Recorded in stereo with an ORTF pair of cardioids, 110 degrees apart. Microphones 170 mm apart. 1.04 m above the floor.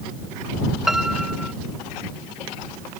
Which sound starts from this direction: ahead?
A piano, at 0.9 s.